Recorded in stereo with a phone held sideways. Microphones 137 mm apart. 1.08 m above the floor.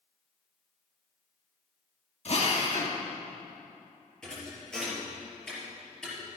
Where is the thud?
5° left (ahead or behind), 4.5 m.